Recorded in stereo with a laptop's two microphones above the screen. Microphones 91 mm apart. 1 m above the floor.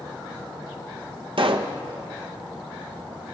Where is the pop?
70° right (ahead or behind), 0.5 m.